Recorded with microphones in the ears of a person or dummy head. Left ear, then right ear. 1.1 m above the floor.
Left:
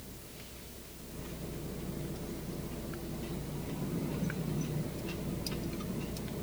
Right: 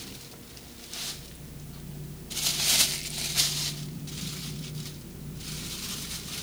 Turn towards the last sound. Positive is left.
No sound to turn to.